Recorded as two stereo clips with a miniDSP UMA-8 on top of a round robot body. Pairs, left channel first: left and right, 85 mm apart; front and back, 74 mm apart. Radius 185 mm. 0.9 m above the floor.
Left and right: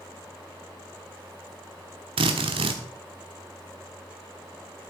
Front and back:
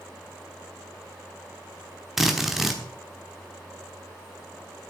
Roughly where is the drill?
Right.